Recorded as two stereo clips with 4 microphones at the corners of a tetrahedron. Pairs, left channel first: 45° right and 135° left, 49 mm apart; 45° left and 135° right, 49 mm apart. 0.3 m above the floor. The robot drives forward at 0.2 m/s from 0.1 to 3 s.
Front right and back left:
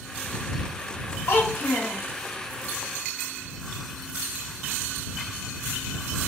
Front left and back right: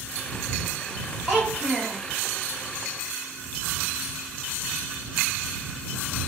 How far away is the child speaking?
About 1.6 m.